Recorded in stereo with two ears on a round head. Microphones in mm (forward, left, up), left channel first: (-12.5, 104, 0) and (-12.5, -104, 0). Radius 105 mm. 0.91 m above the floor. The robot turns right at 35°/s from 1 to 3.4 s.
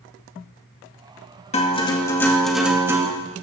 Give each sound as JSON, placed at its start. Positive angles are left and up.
{"t": 1.5, "sound": "a guitar", "azimuth_deg": 145, "distance_m": 1.9}